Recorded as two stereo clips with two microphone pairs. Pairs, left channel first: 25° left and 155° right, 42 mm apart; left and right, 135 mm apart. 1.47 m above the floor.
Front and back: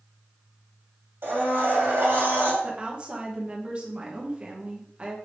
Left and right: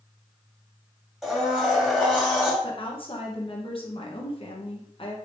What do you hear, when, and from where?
1.2 s a blender: straight behind, 2 m
2.6 s a woman speaking: 135° left, 1.0 m